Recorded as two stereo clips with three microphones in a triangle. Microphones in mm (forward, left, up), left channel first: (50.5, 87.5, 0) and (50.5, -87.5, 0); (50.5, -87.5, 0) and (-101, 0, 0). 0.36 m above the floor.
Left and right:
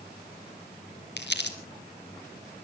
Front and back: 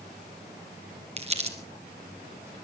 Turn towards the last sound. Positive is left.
turn(degrees=95)